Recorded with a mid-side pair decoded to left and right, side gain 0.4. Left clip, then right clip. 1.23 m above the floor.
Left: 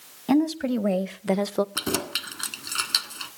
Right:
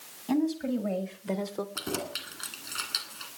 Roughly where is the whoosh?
No whoosh in this recording.